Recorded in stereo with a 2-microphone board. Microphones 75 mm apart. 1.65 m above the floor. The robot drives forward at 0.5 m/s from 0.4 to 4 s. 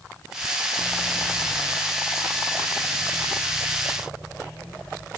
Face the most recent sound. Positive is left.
No sound to turn to.